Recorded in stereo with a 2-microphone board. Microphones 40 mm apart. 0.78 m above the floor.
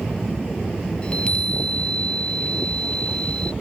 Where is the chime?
25° left (ahead or behind).